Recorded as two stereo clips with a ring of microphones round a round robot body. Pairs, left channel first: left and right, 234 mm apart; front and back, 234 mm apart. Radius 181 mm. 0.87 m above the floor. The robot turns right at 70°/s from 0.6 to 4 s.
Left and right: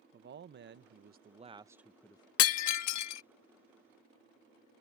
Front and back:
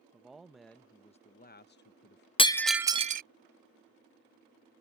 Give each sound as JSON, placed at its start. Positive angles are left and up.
{"t": 0.1, "sound": "a man speaking", "azimuth_deg": -90}
{"t": 2.4, "sound": "breaking glass", "azimuth_deg": 70}